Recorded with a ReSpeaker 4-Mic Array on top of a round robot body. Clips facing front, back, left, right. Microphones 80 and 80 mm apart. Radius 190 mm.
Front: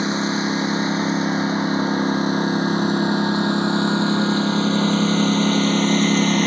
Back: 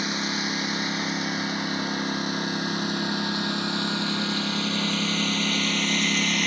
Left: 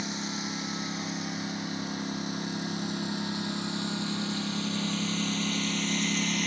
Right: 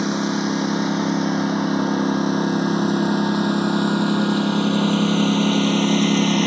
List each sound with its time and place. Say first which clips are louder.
0.0 s a lawn mower: front 7 dB, right 14 dB; 60° right; by 6.5 s 55° right